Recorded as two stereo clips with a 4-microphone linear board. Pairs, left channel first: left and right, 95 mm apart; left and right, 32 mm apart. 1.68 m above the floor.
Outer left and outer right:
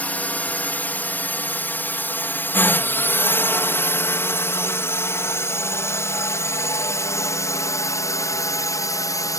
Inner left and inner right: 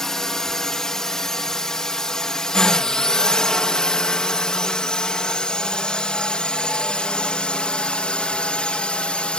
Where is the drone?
15° left (ahead or behind); by 9.4 s 35° left (ahead or behind).